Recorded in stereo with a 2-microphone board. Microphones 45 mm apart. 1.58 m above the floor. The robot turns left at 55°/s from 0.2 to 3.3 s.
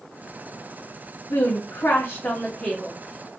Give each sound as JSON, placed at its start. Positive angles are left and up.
{"t": 1.3, "sound": "a woman speaking", "side_deg": 75, "distance_m": 0.7}